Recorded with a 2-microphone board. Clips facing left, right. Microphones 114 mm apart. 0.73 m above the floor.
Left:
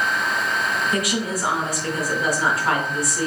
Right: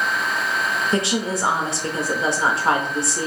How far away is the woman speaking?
About 0.7 m.